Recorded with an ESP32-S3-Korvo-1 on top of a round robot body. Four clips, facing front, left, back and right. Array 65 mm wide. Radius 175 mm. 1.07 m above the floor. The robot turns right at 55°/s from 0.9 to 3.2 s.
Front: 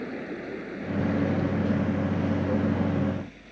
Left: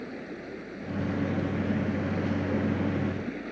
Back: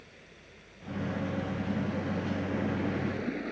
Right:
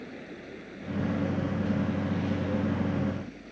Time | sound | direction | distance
0.0 | running water | 15° left | ?